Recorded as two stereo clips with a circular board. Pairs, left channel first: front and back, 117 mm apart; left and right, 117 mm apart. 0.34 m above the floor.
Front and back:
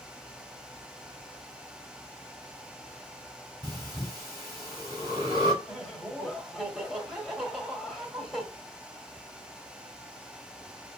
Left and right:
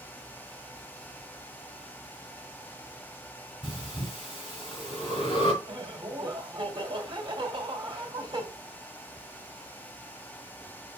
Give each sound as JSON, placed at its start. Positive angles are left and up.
{"t": 3.6, "sound": "breathing", "azimuth_deg": 130, "distance_m": 2.5}
{"t": 5.6, "sound": "laughter", "azimuth_deg": -95, "distance_m": 1.6}